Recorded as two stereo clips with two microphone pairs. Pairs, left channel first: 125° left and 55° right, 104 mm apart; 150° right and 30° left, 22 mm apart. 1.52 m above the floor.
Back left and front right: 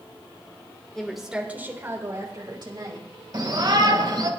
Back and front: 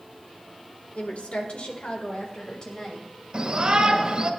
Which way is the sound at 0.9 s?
150° right.